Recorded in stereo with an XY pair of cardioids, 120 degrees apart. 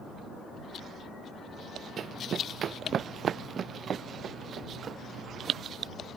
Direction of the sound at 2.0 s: 45° right.